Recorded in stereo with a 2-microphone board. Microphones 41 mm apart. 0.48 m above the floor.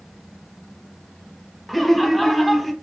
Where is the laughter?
Centre (ahead or behind), 0.8 m.